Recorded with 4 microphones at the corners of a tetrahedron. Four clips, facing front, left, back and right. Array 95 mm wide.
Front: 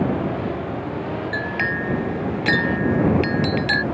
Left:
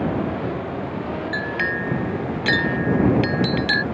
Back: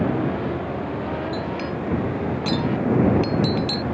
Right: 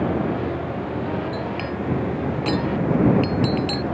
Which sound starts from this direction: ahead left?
A clink, at 1.3 s.